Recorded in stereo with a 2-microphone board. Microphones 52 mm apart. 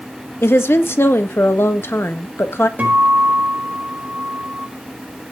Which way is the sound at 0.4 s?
55° left (ahead or behind).